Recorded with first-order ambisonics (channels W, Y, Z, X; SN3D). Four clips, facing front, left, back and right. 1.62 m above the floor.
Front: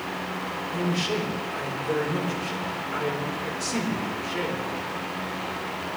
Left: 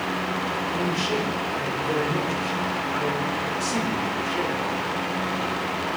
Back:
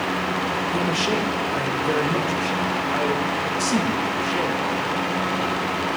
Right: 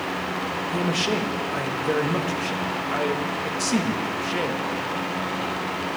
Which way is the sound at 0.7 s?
135° right.